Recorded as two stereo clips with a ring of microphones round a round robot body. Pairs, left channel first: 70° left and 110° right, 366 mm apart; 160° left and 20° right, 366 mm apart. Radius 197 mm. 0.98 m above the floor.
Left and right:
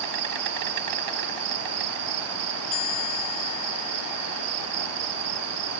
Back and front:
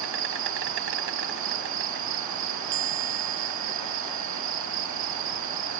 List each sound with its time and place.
0.0 s an insect: 80° right
2.7 s a chime: 25° left